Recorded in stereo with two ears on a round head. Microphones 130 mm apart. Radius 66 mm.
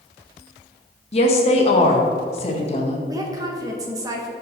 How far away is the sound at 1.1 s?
About 1.1 m.